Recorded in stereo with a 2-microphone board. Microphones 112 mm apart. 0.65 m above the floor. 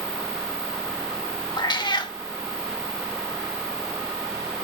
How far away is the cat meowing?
About 0.6 m.